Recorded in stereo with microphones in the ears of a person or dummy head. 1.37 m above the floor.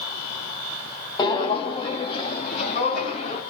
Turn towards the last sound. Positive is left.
turn(degrees=35)  # may be behind; listen again after turning